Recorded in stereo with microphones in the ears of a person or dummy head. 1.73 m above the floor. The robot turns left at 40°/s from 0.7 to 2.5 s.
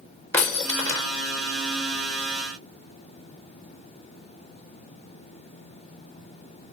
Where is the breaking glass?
5° left (ahead or behind), 1.2 m; by 1.1 s 15° left (ahead or behind), 1.2 m.